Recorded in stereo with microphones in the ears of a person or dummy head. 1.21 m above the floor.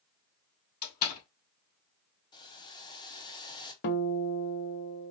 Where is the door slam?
45° left (ahead or behind), 2.5 m.